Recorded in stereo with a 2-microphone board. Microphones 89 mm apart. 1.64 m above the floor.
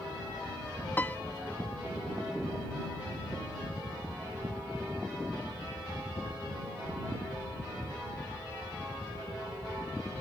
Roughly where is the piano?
Left.